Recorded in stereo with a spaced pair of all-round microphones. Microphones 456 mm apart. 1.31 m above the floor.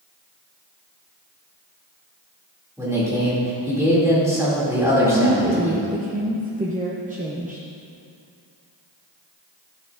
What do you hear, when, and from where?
2.8 s a man speaking: 5° right (ahead or behind), 2.5 m
5.1 s a woman speaking: 20° right (ahead or behind), 0.6 m